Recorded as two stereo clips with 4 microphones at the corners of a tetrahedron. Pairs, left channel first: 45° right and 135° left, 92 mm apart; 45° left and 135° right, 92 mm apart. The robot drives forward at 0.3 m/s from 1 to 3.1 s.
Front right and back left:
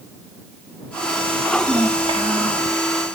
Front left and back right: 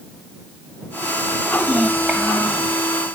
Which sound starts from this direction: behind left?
A child speaking, at 1.6 s.